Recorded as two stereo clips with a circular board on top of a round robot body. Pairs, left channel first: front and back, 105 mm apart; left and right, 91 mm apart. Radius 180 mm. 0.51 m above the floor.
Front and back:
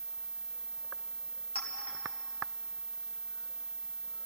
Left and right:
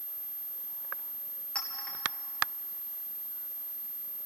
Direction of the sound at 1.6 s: 10° left.